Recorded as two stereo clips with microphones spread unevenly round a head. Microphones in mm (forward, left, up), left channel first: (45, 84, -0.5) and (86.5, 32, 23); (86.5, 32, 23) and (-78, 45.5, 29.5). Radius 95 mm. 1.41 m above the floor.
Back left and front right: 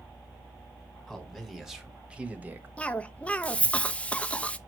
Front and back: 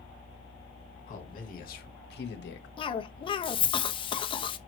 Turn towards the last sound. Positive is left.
turn(degrees=55)